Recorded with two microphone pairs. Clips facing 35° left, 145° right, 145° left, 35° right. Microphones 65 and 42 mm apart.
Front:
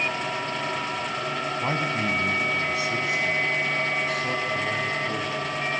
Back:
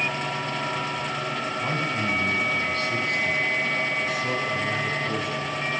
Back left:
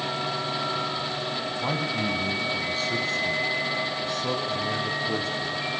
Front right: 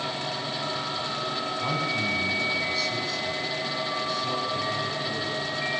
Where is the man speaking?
85° left, 1.7 m; by 5.7 s 135° left, 4 m.